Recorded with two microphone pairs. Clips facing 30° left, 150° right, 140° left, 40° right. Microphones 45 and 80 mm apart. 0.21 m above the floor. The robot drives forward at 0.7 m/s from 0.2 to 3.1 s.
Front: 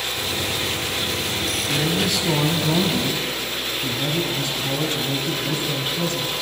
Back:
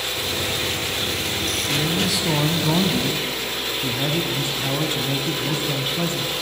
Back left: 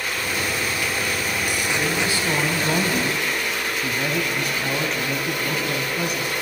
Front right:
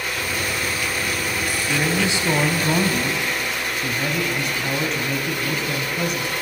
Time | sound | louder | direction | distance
1.7 | a man speaking | front 1 dB, front right 3 dB | 40° right | 1.3 m